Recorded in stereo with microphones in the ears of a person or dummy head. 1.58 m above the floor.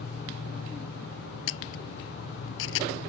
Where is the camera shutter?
70° left (ahead or behind).